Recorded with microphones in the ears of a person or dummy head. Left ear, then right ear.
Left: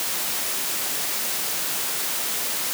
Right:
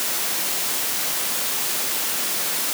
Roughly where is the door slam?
No door slam in this recording.